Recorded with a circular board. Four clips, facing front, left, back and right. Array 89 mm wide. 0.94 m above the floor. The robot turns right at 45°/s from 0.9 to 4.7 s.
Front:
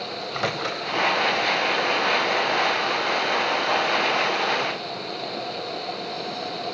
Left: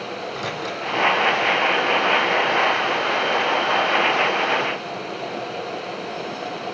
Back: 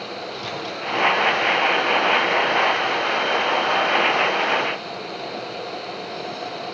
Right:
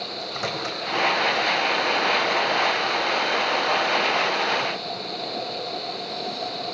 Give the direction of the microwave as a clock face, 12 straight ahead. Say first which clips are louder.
Left 1 dB, front 4 dB; 12 o'clock.